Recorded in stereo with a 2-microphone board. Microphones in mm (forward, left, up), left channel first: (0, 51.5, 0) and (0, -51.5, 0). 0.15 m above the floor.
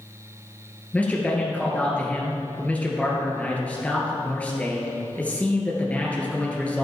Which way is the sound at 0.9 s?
15° left (ahead or behind).